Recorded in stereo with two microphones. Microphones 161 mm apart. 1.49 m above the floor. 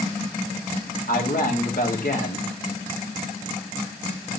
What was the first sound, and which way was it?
A man speaking, 65° left (ahead or behind).